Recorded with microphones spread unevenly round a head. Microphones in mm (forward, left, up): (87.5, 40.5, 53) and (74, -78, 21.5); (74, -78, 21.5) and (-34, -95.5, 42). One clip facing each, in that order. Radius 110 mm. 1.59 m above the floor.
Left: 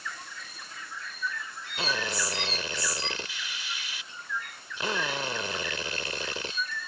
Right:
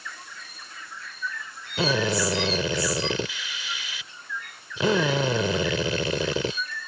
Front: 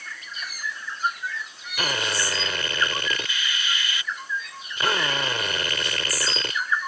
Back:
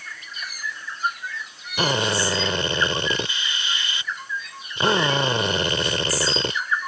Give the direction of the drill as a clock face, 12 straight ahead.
4 o'clock.